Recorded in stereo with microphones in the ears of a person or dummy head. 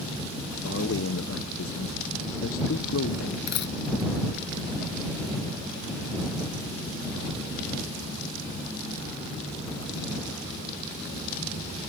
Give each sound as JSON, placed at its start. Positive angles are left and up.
{"t": 0.6, "sound": "a man speaking", "side_deg": 70}
{"t": 3.5, "sound": "a dropped coin", "side_deg": 60}